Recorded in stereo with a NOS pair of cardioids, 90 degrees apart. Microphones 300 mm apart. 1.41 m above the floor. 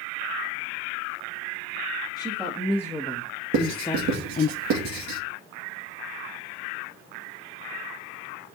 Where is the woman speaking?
10° right, 1.7 m; by 4.5 s 35° left, 0.7 m.